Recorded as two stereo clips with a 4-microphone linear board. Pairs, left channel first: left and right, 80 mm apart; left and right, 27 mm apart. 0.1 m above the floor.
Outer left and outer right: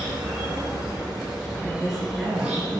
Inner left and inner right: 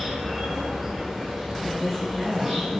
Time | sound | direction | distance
0.0 | an insect | 10° right (ahead or behind) | 2.5 m
1.6 | a woman speaking | centre (ahead or behind) | 1.2 m